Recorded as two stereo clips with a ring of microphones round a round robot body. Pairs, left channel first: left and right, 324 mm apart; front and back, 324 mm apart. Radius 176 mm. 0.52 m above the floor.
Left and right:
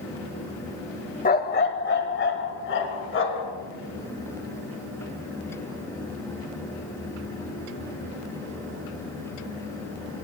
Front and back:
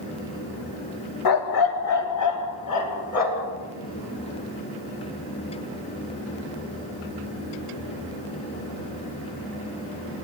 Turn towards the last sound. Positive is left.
turn(degrees=40)